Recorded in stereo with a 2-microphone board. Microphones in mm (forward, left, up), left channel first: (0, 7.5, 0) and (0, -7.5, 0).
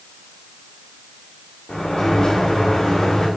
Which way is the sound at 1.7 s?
60° left (ahead or behind).